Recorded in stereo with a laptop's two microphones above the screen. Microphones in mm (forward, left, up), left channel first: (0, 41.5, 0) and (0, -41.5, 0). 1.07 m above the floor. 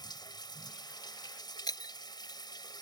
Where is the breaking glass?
55° left (ahead or behind).